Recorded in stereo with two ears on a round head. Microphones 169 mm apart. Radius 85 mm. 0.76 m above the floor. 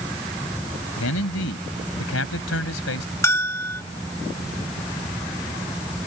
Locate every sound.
1.0 s a man speaking: 85° left
3.2 s a bell: 15° left (ahead or behind)